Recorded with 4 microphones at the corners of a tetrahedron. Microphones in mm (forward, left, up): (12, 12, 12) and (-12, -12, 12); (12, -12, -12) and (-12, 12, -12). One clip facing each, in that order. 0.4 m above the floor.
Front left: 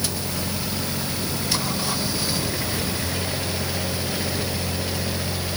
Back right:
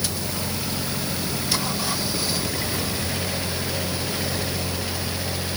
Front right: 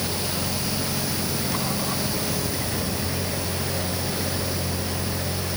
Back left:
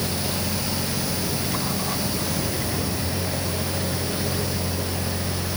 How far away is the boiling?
No boiling in this recording.